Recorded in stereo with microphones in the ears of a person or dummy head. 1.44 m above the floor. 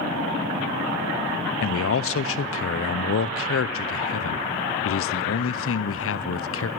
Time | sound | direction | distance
1.6 | a man speaking | 70° left (ahead or behind) | 0.7 m